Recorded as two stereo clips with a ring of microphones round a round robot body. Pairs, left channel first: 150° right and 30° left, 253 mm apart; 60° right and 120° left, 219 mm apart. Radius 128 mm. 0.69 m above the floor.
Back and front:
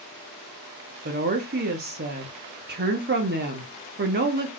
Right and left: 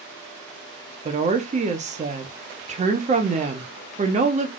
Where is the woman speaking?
70° left, 0.9 m.